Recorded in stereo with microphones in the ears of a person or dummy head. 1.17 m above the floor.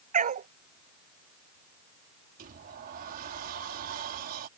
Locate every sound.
0.1 s a dog barking: 45° right (ahead or behind)
2.4 s a sliding door: 50° right (ahead or behind)